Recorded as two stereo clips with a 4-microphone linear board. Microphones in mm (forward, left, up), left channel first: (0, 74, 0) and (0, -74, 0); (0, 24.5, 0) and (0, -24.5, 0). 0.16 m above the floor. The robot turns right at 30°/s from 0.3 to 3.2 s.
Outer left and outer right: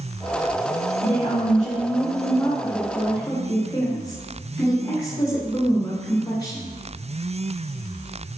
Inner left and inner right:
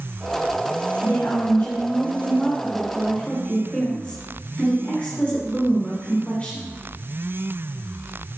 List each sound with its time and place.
1.0 s a woman speaking: 85° left, 2.5 m; by 6.7 s 150° left, 2.5 m